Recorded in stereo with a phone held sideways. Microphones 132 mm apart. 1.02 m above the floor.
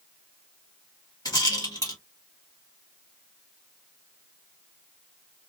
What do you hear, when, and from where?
1.2 s a rattle: 30° left (ahead or behind), 1.5 m